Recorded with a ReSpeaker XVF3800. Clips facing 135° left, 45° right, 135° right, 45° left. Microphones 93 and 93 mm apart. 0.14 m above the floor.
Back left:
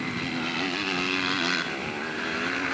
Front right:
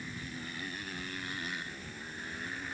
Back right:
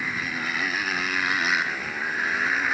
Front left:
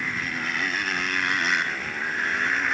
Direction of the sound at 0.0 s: 140° left.